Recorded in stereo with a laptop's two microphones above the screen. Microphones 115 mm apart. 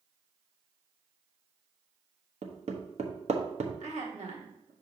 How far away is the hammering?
About 1.1 m.